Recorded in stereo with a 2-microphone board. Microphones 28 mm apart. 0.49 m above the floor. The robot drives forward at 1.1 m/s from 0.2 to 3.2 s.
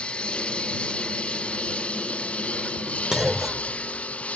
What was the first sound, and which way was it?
A lawn mower, 45° left (ahead or behind).